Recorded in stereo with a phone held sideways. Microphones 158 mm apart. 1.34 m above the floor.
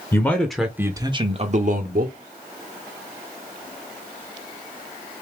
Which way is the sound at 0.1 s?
15° left (ahead or behind).